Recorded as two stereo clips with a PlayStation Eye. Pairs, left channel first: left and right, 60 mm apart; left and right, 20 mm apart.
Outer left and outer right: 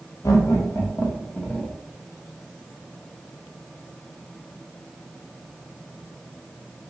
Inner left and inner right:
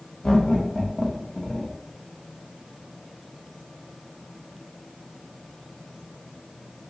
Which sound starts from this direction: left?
Laughter, at 0.2 s.